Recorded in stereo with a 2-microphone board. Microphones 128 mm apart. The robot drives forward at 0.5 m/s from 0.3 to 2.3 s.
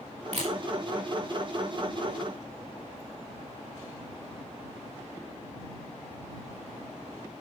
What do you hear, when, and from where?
0.3 s a camera shutter: 60° right (ahead or behind), 4.5 m